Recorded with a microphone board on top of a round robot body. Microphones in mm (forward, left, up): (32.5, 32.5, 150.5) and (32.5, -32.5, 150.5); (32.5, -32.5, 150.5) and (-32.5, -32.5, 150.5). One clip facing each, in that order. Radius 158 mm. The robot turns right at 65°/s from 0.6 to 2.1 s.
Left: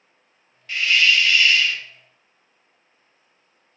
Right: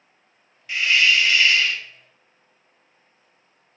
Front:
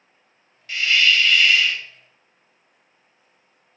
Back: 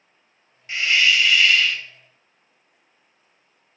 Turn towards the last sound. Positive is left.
turn(degrees=-60)